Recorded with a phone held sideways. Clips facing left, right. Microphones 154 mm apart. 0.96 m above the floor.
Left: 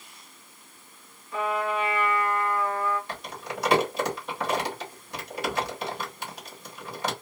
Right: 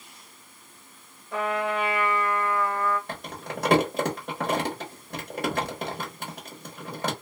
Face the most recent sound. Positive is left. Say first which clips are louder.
# right 1 dB
turn(degrees=-50)  # may be behind; listen again after turning